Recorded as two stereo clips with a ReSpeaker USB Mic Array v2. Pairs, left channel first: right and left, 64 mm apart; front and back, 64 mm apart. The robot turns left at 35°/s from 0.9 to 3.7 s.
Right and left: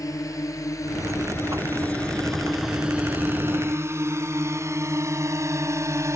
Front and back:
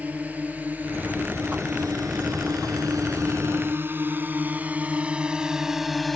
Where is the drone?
115° right; by 6.2 s 85° left.